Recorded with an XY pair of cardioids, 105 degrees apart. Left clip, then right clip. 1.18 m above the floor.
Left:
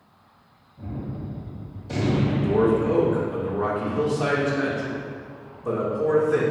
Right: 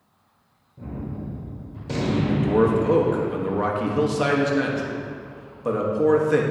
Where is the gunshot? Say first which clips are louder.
Right 1 dB; 65° right, 2 m.